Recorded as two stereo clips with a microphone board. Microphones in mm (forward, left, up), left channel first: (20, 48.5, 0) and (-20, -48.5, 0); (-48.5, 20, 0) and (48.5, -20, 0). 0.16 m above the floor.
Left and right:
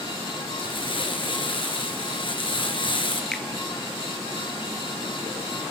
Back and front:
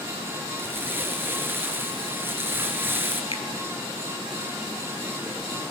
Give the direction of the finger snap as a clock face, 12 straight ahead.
7 o'clock.